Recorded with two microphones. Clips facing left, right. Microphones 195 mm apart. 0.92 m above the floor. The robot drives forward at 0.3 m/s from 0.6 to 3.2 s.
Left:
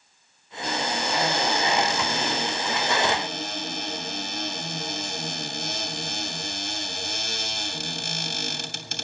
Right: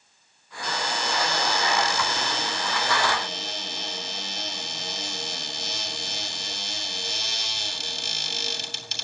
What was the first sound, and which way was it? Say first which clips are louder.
A cupboard door: left 2 dB; 60° left (ahead or behind).